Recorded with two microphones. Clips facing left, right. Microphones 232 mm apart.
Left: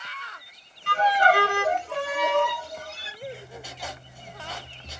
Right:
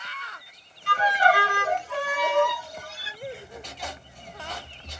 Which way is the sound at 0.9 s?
55° left (ahead or behind).